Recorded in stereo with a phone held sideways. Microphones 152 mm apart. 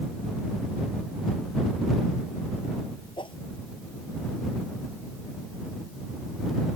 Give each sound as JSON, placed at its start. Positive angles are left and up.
{"t": 3.2, "sound": "a whoosh", "side_deg": 35}